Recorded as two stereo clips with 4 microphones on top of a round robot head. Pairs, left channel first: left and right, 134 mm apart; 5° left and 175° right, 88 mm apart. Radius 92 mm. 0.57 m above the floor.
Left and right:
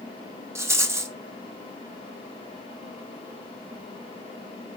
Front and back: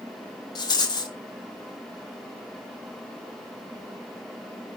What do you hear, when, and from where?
0.6 s a rattle: 25° right, 1.4 m